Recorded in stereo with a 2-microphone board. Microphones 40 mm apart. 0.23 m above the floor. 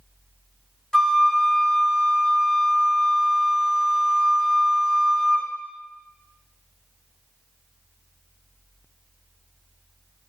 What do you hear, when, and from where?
0.9 s a flute: 15° left (ahead or behind), 0.9 m